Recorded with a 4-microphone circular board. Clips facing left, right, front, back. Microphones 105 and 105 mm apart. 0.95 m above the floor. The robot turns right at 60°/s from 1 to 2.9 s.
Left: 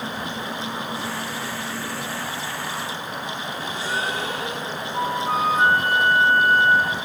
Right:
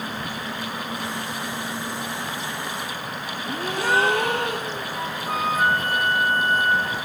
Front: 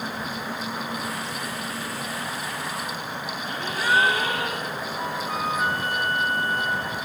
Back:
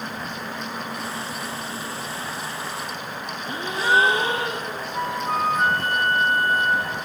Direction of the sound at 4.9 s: 145° left.